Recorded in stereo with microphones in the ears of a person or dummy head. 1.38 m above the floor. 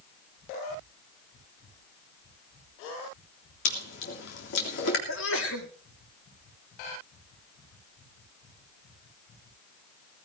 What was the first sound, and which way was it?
Chewing, 65° left (ahead or behind).